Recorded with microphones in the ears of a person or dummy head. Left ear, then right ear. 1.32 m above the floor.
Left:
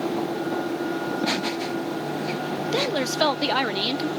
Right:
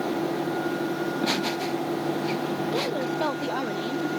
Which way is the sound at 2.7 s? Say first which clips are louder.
Left 7 dB; 75° left (ahead or behind).